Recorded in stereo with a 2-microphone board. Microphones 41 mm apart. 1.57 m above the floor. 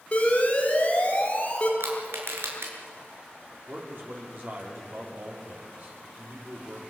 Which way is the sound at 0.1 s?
35° left (ahead or behind).